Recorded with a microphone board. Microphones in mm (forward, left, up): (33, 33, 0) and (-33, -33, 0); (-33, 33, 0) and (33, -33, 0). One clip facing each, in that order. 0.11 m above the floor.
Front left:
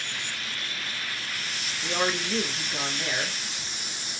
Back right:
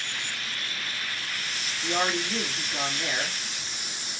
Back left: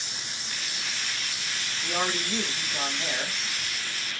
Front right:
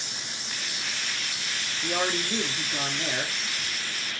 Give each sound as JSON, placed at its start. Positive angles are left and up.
{"t": 1.8, "sound": "a man speaking", "azimuth_deg": -35, "distance_m": 1.5}